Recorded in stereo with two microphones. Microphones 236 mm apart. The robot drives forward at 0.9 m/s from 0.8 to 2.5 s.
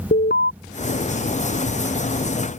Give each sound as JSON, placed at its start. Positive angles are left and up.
{"t": 0.1, "sound": "an alarm", "side_deg": 45}